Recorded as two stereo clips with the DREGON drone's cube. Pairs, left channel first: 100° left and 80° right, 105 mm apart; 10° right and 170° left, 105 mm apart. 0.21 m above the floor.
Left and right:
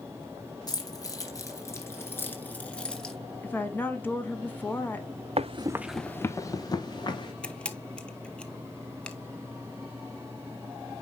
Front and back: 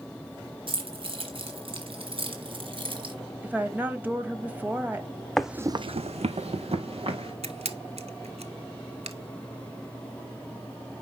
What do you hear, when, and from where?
0.7 s keys jangling: 145° left, 2.5 m; by 3.1 s 175° right, 1.6 m
3.4 s a woman speaking: 130° left, 1.0 m
5.4 s running footsteps: 95° right, 0.7 m; by 7.3 s 145° left, 2.5 m
7.4 s a camera shutter: straight behind, 0.7 m